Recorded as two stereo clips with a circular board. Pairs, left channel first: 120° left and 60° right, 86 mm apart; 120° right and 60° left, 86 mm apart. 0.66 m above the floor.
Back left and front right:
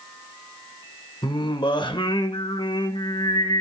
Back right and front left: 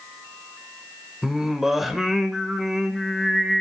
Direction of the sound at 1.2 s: 145° left.